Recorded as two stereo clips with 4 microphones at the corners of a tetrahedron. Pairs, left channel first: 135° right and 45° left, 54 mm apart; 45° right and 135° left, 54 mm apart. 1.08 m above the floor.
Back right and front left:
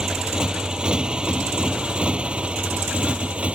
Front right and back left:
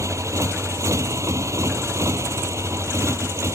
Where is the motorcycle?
120° left; by 3.6 s 110° left.